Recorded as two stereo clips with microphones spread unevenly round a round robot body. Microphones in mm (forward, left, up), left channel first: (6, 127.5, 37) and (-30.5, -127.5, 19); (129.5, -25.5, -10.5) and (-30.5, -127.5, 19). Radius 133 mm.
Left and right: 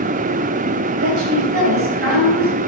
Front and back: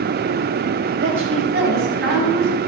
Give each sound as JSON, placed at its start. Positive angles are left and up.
{"t": 1.0, "sound": "a woman speaking", "azimuth_deg": -135, "distance_m": 5.5}